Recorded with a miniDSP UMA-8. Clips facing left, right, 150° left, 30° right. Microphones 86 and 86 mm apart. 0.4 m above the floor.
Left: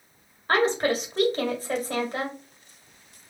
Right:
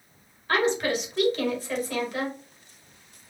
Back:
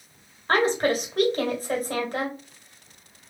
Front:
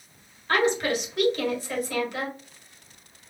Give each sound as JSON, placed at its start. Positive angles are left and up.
{"t": 0.5, "sound": "a woman speaking", "azimuth_deg": 125, "distance_m": 1.5}